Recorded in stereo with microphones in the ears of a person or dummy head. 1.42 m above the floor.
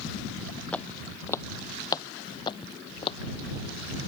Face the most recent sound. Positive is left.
turn(degrees=30)  # may be behind; listen again after turning